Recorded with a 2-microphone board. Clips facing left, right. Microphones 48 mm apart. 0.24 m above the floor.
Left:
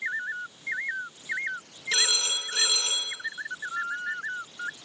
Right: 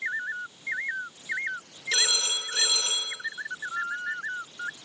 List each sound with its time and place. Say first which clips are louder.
1.9 s a phone ringing: even; 20° left (ahead or behind), 4.5 m